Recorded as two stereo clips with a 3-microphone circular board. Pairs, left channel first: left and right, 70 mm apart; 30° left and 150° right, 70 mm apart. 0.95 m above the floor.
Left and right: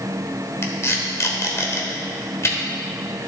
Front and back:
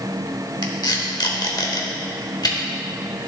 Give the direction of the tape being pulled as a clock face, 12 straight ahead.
11 o'clock.